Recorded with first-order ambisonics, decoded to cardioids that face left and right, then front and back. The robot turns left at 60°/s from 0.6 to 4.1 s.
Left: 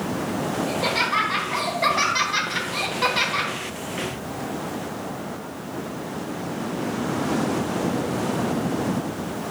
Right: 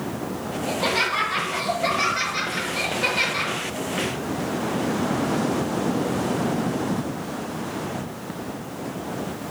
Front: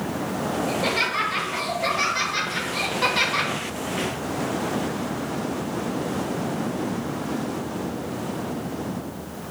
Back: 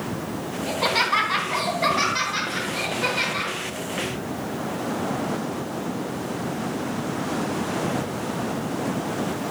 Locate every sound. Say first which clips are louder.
0.7 s laughter: right 2 dB, back 4 dB; 165° right, 2.5 m; by 3.5 s 25° left, 2.5 m